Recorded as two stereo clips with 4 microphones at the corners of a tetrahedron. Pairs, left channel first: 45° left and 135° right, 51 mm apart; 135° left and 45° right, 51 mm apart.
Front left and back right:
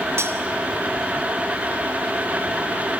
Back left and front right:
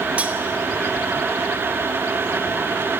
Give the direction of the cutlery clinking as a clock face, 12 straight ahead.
4 o'clock.